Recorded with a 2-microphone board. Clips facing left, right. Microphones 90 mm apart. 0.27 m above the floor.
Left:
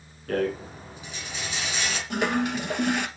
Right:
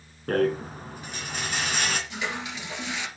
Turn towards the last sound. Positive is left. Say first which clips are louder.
# left 8 dB
turn(degrees=55)  # may be behind; listen again after turning